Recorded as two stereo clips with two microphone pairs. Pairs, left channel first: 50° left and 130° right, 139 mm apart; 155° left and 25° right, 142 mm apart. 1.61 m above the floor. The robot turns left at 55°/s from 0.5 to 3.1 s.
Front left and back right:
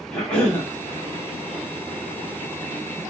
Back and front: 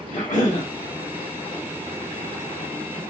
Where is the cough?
130° left, 1.4 m; by 0.7 s 120° left, 1.4 m.